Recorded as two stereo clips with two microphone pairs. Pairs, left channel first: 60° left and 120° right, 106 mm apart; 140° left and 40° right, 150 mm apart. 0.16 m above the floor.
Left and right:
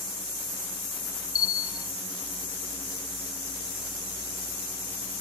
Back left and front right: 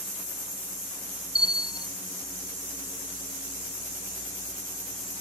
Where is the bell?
45° left, 0.6 m.